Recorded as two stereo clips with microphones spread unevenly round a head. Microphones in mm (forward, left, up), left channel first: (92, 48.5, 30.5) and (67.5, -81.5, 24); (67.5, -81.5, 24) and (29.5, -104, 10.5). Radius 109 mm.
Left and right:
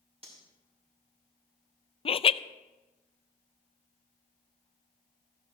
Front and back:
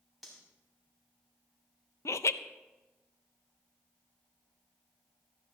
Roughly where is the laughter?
Ahead left.